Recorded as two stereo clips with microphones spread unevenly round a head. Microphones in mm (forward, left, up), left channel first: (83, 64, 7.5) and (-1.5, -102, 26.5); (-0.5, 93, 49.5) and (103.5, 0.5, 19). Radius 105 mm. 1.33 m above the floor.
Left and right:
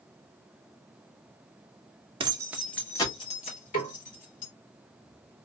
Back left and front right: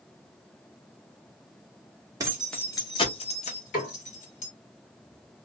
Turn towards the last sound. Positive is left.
turn(degrees=130)